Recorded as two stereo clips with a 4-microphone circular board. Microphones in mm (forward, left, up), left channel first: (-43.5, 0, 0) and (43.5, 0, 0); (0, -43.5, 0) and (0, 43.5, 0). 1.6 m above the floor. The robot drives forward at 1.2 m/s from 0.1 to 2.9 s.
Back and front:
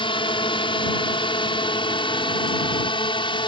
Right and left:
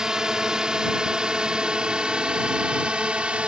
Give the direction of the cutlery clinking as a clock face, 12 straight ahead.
No cutlery clinking in this recording.